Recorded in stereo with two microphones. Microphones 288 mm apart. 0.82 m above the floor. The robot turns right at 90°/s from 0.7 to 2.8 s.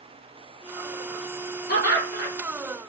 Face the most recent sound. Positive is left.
turn(degrees=165)